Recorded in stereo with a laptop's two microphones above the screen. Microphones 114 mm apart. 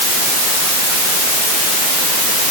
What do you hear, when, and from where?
Only background noise.